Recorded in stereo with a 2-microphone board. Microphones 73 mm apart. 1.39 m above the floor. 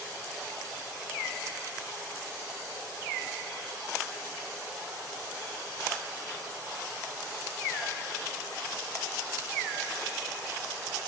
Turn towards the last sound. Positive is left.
No sound to turn to.